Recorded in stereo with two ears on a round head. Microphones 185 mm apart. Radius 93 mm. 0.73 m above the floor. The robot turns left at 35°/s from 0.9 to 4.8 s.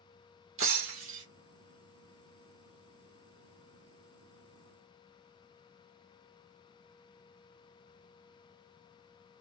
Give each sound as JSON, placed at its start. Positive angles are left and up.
{"t": 0.6, "sound": "breaking glass", "side_deg": -65, "distance_m": 1.6}